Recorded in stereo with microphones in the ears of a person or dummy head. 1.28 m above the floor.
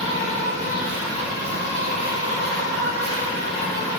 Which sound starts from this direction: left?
An insect, at 0.0 s.